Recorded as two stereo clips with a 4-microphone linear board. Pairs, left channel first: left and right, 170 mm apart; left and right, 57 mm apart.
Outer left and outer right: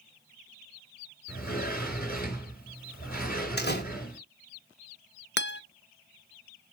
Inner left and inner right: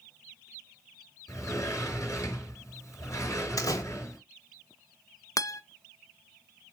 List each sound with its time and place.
1.3 s a sliding door: 55° left (ahead or behind), 4.5 m
3.6 s a door slam: 70° left (ahead or behind), 1.6 m
5.4 s a guitar: 75° left (ahead or behind), 0.6 m